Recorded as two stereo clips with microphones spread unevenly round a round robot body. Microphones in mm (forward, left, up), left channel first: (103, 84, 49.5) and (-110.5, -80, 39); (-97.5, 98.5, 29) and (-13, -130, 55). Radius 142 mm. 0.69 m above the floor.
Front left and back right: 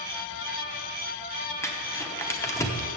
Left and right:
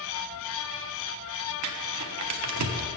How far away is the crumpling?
About 0.8 m.